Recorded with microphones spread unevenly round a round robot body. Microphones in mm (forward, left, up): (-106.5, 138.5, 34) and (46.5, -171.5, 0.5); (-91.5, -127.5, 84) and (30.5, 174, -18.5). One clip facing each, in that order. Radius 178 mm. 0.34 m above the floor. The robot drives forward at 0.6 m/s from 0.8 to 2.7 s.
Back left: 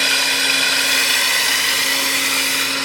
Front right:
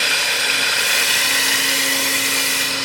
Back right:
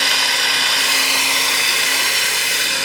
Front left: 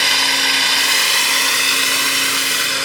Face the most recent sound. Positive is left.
turn(degrees=150)